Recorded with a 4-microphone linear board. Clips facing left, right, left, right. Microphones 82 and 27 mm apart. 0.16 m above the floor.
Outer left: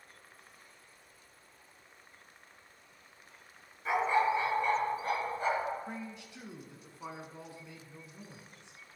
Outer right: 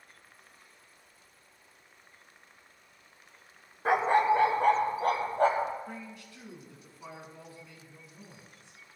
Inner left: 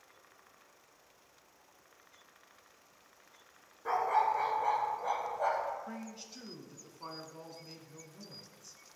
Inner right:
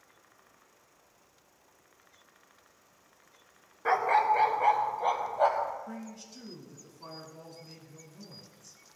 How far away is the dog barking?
About 0.7 m.